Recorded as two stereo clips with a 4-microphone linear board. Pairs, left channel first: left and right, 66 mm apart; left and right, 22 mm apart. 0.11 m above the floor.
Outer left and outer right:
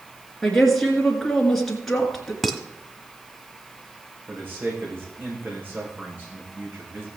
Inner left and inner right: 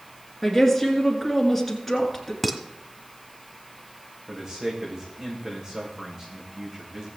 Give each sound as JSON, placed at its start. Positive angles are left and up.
{"t": 0.4, "sound": "a woman speaking", "side_deg": 5, "distance_m": 1.8}
{"t": 2.4, "sound": "dishes clattering", "side_deg": -5, "distance_m": 1.3}
{"t": 4.3, "sound": "a man speaking", "side_deg": -30, "distance_m": 6.0}